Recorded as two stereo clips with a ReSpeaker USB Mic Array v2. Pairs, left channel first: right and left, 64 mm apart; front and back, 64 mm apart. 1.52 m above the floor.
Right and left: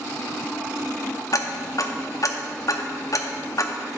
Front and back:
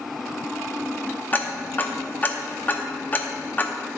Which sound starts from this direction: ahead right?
Ticking, at 1.3 s.